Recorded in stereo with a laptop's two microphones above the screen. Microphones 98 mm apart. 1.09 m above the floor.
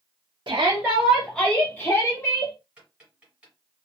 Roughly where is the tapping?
Centre.